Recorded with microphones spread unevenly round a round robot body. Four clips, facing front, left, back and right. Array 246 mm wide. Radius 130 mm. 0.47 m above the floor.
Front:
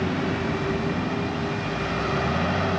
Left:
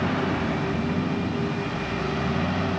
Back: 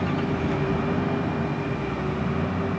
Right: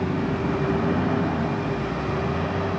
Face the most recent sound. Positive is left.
No sound to turn to.